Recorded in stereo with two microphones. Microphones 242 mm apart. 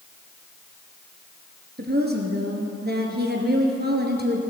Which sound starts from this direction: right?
A woman speaking, at 1.8 s.